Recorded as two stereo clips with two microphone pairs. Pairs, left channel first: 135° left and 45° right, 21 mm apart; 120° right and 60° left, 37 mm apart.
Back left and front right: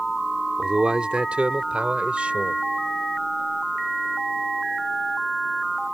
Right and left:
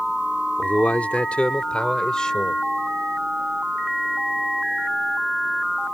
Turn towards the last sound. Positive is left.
turn(degrees=-50)